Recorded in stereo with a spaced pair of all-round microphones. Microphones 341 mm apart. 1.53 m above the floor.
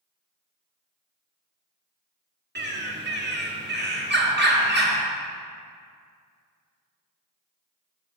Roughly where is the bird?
Right.